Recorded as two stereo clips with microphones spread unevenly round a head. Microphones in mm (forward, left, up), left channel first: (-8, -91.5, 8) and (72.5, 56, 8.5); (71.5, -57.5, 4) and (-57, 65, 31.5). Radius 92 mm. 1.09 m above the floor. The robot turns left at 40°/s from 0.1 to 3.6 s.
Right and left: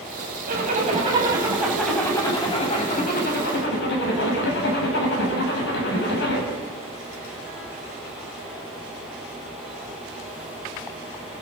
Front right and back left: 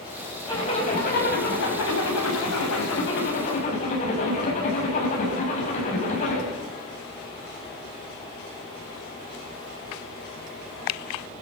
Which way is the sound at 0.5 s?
25° left.